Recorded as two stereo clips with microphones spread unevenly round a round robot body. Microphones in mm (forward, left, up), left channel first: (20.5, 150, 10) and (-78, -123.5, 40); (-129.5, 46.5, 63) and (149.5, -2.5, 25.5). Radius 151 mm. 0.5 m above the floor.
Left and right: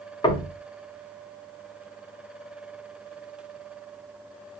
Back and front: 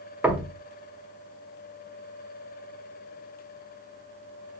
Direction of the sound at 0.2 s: 50° left.